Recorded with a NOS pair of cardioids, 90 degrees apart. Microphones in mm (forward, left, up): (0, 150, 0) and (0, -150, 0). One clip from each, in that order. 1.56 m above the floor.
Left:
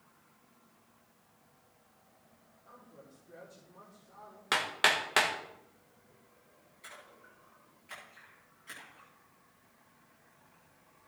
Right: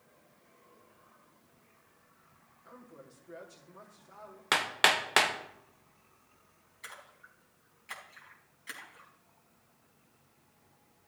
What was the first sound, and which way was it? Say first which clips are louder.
A man speaking: right 3 dB; 65° right.